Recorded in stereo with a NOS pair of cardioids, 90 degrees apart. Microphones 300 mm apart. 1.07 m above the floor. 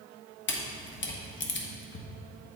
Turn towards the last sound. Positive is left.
turn(degrees=40)